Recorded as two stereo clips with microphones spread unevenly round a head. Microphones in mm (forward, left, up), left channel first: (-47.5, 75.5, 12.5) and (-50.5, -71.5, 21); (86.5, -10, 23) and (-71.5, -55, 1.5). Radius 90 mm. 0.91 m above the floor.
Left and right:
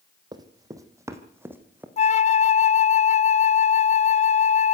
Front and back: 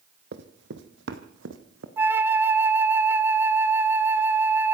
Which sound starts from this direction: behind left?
A flute, at 2.0 s.